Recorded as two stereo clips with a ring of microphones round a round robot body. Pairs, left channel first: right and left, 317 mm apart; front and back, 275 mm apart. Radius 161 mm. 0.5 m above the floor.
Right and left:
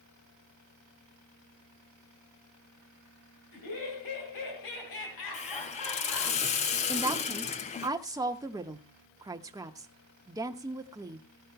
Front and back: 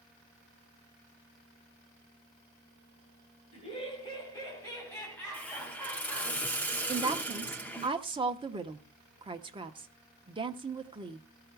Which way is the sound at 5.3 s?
75° right.